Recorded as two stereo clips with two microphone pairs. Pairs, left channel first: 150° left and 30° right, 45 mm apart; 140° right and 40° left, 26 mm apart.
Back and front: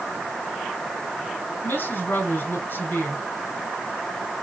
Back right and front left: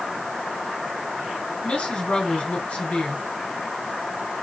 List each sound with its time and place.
1.6 s a woman speaking: straight behind, 3 m